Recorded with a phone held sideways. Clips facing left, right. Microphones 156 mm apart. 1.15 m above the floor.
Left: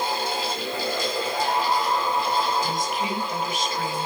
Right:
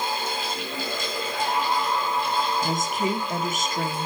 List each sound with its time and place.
0.0 s a fan: 35° left (ahead or behind), 4.5 m
2.6 s a woman speaking: 45° right (ahead or behind), 1.3 m